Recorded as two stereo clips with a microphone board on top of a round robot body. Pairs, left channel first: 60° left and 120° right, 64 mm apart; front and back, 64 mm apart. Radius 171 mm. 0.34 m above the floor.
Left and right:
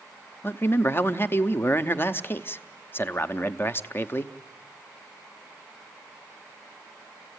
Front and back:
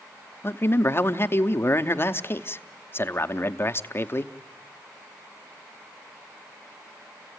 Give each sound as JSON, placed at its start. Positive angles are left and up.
{"t": 0.4, "sound": "a man speaking", "azimuth_deg": 25, "distance_m": 0.9}